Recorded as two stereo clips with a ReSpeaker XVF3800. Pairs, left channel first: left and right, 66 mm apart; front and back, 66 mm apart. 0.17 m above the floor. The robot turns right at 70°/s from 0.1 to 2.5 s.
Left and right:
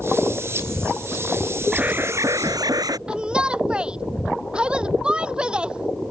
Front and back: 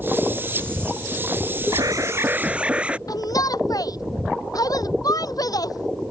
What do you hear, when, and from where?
1.7 s an alarm: 165° right; by 3.0 s 110° right
3.1 s a shout: 15° right